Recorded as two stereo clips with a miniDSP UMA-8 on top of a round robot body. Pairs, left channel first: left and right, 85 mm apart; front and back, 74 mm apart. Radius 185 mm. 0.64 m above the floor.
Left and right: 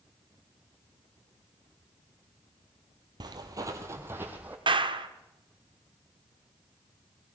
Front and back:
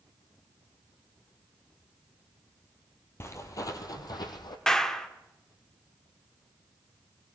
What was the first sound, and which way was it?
Footsteps, 50° right.